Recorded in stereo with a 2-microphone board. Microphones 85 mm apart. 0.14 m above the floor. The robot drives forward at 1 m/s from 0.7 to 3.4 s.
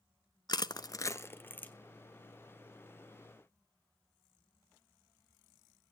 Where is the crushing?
55° left (ahead or behind), 0.5 m; by 1.7 s 20° left (ahead or behind), 1.2 m.